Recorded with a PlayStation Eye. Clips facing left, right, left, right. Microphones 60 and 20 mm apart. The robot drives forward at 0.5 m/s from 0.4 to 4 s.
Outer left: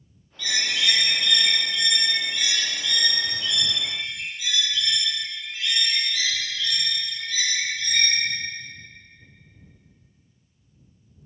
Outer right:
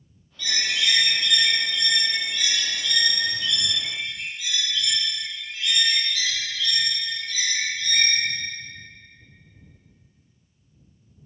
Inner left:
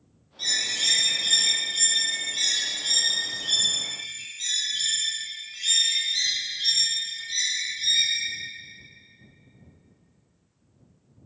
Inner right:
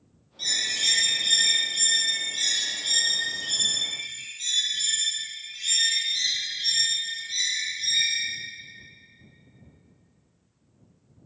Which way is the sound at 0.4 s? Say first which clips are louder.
Even, even; centre (ahead or behind).